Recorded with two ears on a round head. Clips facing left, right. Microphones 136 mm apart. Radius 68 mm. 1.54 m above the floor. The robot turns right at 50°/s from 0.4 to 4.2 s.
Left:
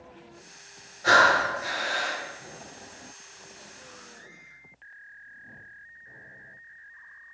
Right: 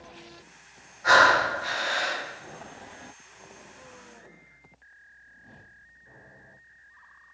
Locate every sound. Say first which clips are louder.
1.0 s breathing: right 1 dB; 130° left, 0.7 m; by 2.2 s 175° right, 0.7 m